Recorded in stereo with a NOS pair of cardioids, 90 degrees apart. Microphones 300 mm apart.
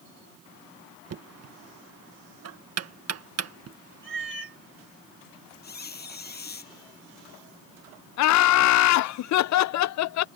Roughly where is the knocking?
Ahead right.